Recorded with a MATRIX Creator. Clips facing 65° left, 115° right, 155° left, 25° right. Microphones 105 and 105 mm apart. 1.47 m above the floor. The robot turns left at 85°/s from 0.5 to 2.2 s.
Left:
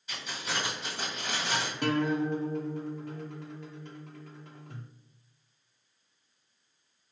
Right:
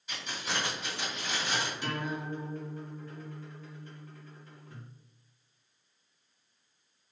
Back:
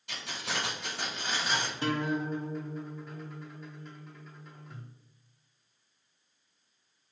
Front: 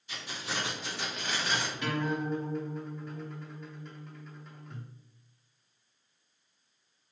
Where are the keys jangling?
160° left, 1.5 m; by 1.7 s 55° left, 1.5 m.